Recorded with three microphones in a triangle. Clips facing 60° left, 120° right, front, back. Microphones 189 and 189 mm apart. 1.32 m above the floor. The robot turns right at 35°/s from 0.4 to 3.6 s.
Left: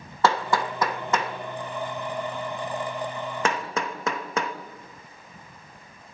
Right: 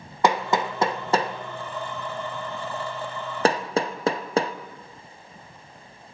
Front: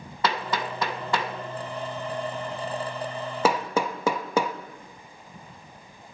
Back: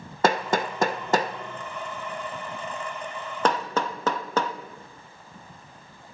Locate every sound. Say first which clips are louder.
0.2 s hammering: right 1 dB, back 5 dB; 175° left, 0.7 m; by 4.5 s 75° right, 0.7 m